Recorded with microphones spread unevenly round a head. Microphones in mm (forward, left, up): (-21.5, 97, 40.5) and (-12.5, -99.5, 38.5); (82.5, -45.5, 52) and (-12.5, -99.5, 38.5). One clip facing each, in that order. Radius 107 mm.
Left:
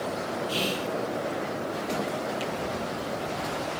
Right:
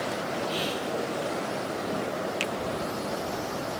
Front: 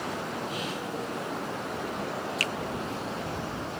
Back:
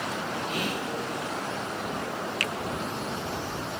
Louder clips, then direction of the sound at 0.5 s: Left 1 dB, back 3 dB; 155° left.